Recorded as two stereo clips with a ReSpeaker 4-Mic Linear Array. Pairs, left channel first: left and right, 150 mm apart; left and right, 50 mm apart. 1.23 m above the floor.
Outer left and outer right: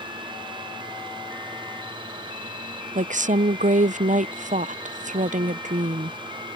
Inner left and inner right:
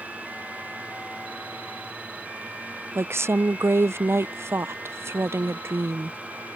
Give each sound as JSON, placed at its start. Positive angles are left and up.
{"t": 3.0, "sound": "a woman speaking", "side_deg": -60}